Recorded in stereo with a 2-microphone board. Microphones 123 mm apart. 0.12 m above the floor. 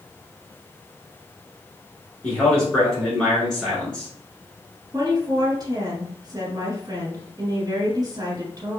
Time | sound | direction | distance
2.2 | a man speaking | 5° left (ahead or behind) | 1.5 m
4.9 | a woman speaking | 35° right (ahead or behind) | 1.4 m